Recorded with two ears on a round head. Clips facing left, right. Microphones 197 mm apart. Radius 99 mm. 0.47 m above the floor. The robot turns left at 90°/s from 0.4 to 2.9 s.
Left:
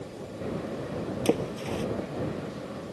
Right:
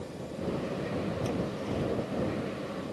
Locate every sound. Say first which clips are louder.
1.2 s a splash: left 5 dB; 75° left (ahead or behind); by 1.9 s 50° left (ahead or behind)